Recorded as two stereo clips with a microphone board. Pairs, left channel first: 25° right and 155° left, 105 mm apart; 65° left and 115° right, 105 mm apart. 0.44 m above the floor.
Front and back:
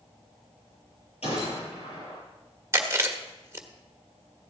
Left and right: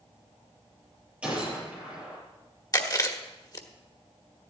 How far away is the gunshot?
About 8 m.